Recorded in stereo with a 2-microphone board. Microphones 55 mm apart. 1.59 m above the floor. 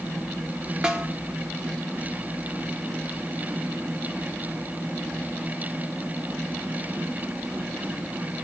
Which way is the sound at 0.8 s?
15° right (ahead or behind).